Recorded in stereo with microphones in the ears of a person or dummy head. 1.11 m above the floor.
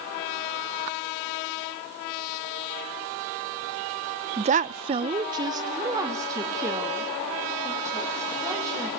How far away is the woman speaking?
About 0.5 m.